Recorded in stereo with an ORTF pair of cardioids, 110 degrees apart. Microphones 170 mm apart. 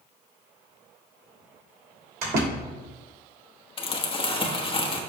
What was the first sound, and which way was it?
A door slam, 60° right.